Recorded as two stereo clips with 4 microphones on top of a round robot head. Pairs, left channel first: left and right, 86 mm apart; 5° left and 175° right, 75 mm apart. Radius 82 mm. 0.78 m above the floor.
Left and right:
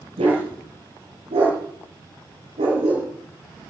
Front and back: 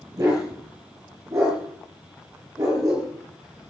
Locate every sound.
0.2 s a dog barking: 115° right, 6.5 m